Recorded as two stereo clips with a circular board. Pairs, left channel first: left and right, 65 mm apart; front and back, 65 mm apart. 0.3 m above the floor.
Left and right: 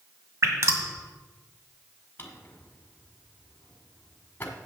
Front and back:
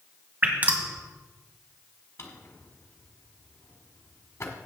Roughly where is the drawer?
Ahead left.